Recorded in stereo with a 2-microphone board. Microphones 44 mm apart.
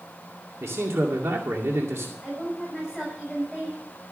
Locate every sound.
0.6 s a man speaking: 85° right, 2 m
2.2 s a woman speaking: 15° right (ahead or behind), 7 m